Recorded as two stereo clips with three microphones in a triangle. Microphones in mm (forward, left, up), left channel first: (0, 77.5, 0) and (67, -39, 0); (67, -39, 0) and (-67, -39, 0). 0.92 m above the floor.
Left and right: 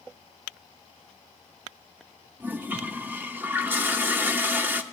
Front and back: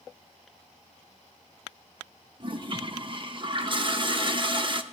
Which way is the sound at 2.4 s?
135° right.